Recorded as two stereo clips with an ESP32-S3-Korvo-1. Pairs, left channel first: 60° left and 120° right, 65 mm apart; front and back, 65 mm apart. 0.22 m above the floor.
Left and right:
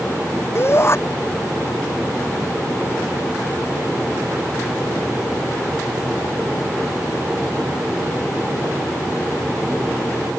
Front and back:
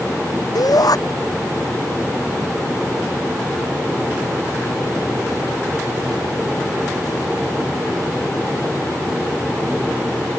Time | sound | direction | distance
0.6 | a shout | 15° left | ?